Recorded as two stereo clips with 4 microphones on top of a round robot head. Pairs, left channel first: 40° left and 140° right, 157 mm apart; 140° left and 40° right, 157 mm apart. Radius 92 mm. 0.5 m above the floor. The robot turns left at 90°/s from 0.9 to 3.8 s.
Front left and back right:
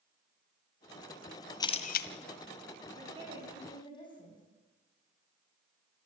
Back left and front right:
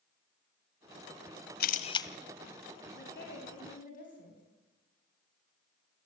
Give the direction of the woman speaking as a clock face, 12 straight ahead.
6 o'clock.